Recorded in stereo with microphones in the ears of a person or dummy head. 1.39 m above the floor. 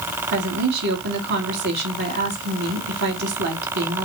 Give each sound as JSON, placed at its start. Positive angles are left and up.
{"t": 0.3, "sound": "a woman speaking", "side_deg": -55, "distance_m": 2.5}